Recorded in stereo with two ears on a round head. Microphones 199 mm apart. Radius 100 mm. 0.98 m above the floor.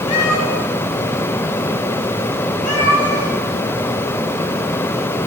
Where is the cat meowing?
70° left (ahead or behind), 5 m.